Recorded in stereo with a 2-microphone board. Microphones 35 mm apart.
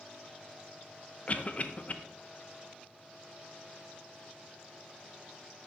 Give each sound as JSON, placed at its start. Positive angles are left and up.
{"t": 1.3, "sound": "a cough", "side_deg": 40, "distance_m": 0.7}